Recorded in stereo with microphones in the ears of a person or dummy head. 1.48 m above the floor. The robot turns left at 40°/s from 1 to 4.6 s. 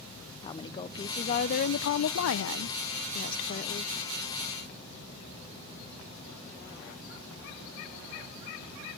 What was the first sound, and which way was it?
A woman speaking, 155° left.